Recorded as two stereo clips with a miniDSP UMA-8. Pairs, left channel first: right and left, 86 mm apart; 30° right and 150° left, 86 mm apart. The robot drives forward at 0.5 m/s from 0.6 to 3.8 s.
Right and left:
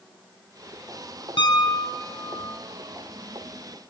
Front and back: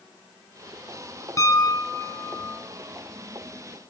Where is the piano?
80° right, 3 m; by 2.6 s 95° right, 3 m.